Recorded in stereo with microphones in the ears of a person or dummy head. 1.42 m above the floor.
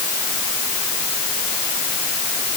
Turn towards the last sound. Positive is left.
No sound to turn to.